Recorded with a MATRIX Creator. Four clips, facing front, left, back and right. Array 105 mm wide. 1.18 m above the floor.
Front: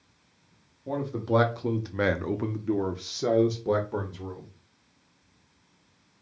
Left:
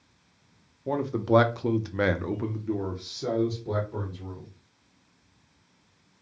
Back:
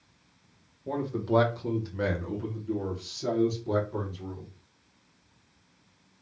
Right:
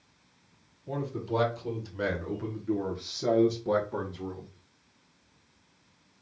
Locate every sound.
0.9 s a man speaking: 90° left, 1.0 m; by 4.5 s 30° right, 1.4 m